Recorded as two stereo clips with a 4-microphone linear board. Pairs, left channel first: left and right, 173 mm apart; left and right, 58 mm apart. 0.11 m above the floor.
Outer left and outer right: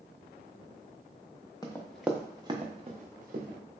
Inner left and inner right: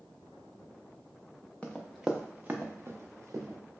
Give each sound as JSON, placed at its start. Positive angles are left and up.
{"t": 1.6, "sound": "running footsteps", "side_deg": 20, "distance_m": 0.7}